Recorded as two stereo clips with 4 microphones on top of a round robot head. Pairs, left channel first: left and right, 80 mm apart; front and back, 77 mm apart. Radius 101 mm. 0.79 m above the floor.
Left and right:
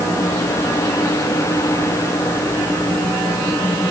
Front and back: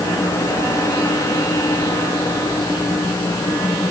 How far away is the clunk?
No clunk in this recording.